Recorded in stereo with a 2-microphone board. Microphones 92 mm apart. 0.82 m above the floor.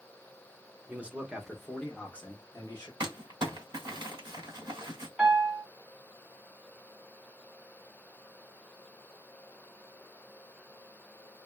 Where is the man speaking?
20° right (ahead or behind), 0.9 m; by 2.9 s 30° left (ahead or behind), 1.1 m.